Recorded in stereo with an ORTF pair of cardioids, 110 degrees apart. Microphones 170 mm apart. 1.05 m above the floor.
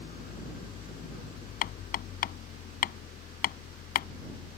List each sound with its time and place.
0.0 s an engine running: 65° left
1.6 s hammering: 65° left